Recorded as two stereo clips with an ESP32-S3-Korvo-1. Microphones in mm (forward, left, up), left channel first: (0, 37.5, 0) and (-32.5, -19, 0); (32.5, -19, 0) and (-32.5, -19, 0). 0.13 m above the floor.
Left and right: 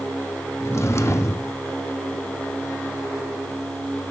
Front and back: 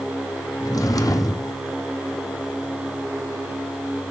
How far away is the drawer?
About 1.6 m.